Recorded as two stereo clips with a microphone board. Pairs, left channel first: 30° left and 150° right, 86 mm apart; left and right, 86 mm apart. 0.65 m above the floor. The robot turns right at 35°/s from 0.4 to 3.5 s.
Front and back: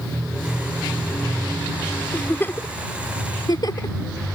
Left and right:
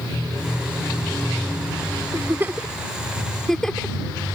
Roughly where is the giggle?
Ahead right.